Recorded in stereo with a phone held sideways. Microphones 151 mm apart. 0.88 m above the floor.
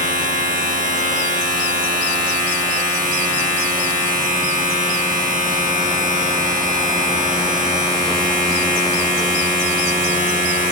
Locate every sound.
0.0 s a machine running: 65° right (ahead or behind), 0.9 m